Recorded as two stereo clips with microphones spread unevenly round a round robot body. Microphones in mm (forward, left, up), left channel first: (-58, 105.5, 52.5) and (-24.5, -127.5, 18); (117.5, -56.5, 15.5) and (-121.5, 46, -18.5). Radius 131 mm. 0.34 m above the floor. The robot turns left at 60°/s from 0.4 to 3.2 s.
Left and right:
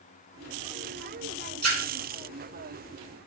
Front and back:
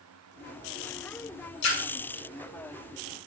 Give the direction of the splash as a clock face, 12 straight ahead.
12 o'clock.